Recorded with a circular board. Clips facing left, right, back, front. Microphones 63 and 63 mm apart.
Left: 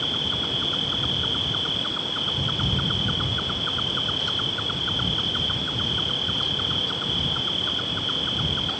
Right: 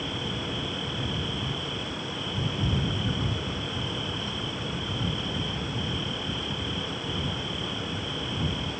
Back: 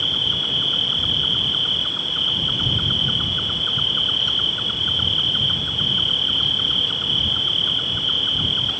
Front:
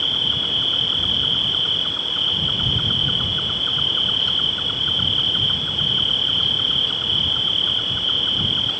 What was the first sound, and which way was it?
An insect, 90° left.